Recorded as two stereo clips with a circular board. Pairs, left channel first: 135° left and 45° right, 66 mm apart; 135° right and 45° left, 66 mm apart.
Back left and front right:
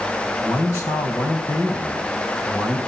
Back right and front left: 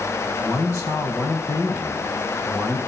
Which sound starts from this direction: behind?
A man speaking, at 0.4 s.